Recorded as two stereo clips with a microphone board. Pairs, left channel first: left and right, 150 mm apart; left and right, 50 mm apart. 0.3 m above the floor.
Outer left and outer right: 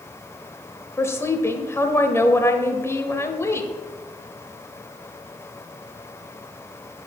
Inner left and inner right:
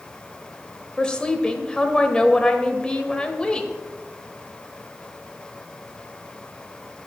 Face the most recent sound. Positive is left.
turn(degrees=20)  # may be behind; listen again after turning